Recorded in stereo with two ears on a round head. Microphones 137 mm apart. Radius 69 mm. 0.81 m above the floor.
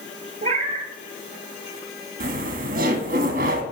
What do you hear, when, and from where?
0.4 s a cat meowing: 45° right (ahead or behind), 0.9 m
2.2 s laughter: 60° right (ahead or behind), 1.2 m